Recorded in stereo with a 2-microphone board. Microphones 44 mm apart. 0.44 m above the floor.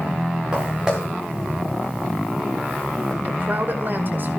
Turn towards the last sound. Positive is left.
turn(degrees=-50)  # may be behind; listen again after turning